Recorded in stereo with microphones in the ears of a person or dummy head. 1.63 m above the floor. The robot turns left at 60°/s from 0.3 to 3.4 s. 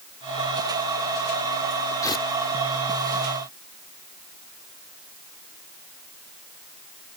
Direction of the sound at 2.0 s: 15° left (ahead or behind).